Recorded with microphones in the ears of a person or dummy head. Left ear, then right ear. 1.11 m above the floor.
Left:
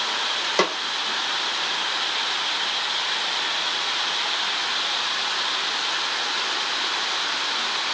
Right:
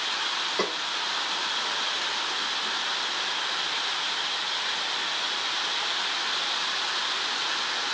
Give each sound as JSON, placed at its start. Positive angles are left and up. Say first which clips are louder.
{"t": 0.6, "sound": "a snare drum", "louder": "left 10 dB", "side_deg": 40, "distance_m": 0.9}